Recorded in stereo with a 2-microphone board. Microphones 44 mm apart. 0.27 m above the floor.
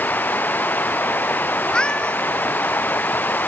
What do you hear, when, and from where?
0.0 s running water: 40° left (ahead or behind)
1.6 s a cat meowing: 15° left (ahead or behind)